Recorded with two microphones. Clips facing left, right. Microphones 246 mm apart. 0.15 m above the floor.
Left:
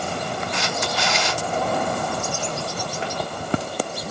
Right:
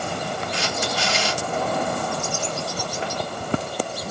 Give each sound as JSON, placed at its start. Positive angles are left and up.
{"t": 0.5, "sound": "a camera shutter", "side_deg": -35, "distance_m": 2.5}